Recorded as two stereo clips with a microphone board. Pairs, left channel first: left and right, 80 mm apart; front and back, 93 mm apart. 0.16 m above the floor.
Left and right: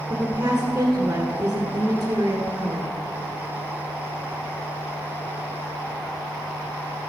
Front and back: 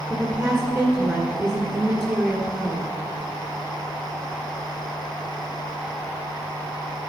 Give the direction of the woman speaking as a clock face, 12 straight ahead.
4 o'clock.